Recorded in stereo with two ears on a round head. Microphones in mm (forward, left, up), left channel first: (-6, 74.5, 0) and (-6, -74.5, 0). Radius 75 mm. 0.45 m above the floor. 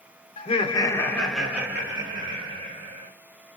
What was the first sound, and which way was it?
Laughter, 40° left (ahead or behind).